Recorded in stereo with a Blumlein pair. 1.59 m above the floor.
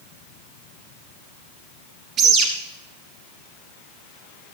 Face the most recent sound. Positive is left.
turn(degrees=-30)